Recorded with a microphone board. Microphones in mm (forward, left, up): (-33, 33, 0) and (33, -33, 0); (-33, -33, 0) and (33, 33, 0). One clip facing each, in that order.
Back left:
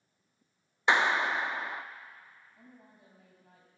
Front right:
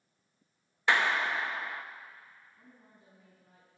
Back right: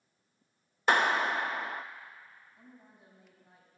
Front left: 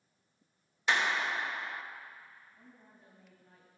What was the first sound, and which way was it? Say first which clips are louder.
A clap: back left 2 dB, back right 5 dB; 160° right.